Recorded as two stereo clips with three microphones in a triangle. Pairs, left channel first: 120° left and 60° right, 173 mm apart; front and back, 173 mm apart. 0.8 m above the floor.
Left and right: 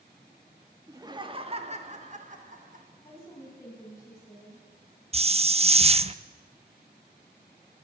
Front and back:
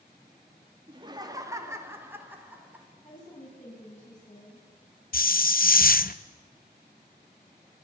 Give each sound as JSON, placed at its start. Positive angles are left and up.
{"t": 0.9, "sound": "laughter", "azimuth_deg": -130, "distance_m": 1.6}
{"t": 3.0, "sound": "a woman speaking", "azimuth_deg": 45, "distance_m": 7.5}
{"t": 5.1, "sound": "a hiss", "azimuth_deg": -15, "distance_m": 0.5}